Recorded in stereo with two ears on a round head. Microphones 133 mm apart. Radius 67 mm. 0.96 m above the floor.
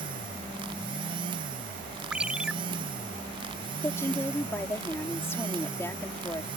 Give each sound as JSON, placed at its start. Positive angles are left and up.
{"t": 2.1, "sound": "a ringtone", "side_deg": -5}
{"t": 3.8, "sound": "a woman speaking", "side_deg": 15}